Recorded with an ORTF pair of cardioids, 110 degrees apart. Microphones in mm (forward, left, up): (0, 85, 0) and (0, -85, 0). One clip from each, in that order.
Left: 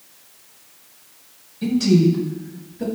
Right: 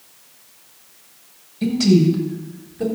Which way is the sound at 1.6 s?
50° right.